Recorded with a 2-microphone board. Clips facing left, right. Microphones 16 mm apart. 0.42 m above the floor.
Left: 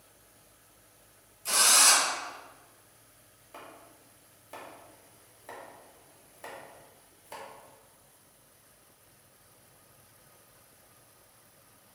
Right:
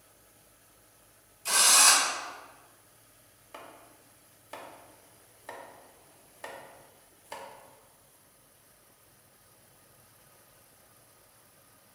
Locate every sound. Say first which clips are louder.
1.4 s a drill: right 1 dB; 25° right (ahead or behind), 1.4 m
3.5 s chopping: even; 25° right (ahead or behind), 0.7 m